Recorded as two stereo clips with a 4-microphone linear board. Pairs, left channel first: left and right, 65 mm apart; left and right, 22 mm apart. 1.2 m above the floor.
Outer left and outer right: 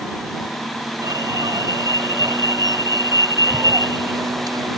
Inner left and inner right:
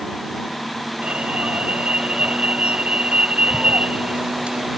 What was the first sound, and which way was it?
An alarm, 65° right (ahead or behind).